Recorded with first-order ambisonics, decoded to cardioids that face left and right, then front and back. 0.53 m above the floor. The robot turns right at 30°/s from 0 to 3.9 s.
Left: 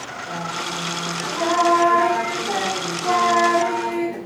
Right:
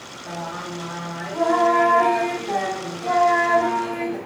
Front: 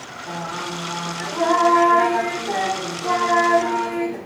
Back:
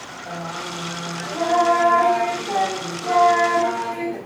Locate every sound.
0.2 s singing: 20° right, 1.7 m; by 4.2 s 90° left, 1.7 m